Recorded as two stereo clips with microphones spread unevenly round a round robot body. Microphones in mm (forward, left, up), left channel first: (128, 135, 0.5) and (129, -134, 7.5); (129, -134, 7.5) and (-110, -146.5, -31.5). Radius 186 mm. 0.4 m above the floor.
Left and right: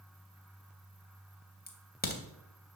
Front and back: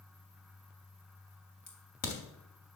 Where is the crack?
40° left, 3 m.